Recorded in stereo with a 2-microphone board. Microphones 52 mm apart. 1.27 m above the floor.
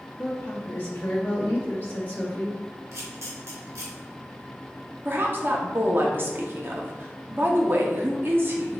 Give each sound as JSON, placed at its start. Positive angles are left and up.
{"t": 0.2, "sound": "a woman speaking", "side_deg": 35, "distance_m": 1.5}
{"t": 2.9, "sound": "a camera shutter", "side_deg": -65, "distance_m": 1.3}
{"t": 5.0, "sound": "a woman speaking", "side_deg": -40, "distance_m": 0.8}